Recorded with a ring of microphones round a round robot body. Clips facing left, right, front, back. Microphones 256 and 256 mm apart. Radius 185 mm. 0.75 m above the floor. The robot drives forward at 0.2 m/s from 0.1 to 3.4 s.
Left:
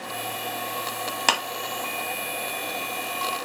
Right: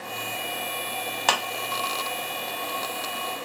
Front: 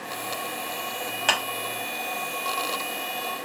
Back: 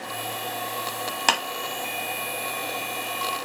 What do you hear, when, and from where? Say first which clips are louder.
1.3 s a clap: right 1 dB, back 2 dB; 145° left, 1.1 m